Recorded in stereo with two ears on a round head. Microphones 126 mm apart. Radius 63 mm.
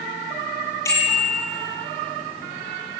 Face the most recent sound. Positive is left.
turn(degrees=20)  # may be behind; listen again after turning